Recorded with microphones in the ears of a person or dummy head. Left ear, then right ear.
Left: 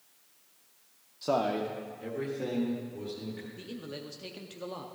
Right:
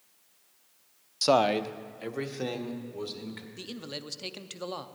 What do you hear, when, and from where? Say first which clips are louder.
1.2 s a man speaking: right 6 dB; 75° right (ahead or behind), 0.5 m; by 3.5 s 65° right (ahead or behind), 2.5 m
3.6 s a man speaking: right 2 dB; 30° right (ahead or behind), 0.6 m